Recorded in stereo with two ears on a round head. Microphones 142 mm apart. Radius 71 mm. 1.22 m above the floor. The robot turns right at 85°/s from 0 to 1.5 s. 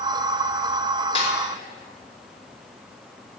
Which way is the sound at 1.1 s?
35° left (ahead or behind).